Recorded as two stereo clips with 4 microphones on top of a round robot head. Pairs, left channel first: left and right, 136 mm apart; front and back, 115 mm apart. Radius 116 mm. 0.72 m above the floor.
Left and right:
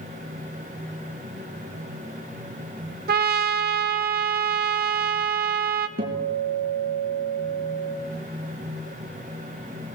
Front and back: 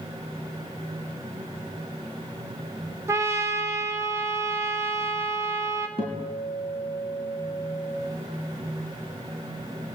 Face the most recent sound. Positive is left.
turn(degrees=-125)